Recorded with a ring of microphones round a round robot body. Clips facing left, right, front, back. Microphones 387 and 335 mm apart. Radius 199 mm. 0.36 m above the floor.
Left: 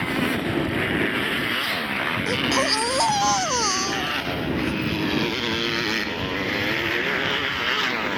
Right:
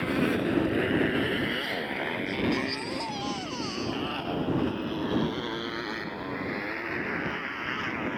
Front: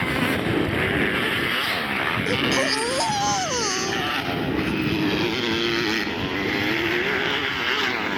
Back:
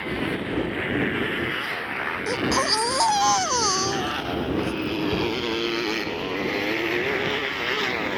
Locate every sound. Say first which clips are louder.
0.0 s a motorcycle: left 1 dB, front 3 dB; 20° left; by 8.2 s 65° left
2.3 s a baby crying: left 4 dB, front 1 dB; 105° left